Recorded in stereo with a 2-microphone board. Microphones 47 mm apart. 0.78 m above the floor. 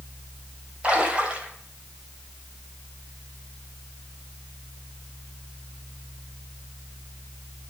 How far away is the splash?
About 2.5 m.